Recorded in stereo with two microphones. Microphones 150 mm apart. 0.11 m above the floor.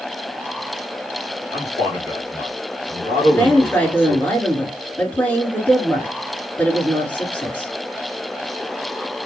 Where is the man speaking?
40° left (ahead or behind), 1.7 m.